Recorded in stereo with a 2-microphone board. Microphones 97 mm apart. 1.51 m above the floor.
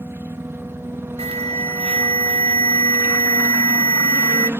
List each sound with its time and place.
0.0 s a helicopter: 25° right (ahead or behind)
1.2 s an alarm: 80° right